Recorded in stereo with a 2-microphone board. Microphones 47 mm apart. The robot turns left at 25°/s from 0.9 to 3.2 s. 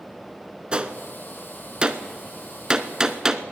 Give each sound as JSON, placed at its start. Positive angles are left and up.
{"t": 0.7, "sound": "a gunshot", "side_deg": -20, "distance_m": 0.6}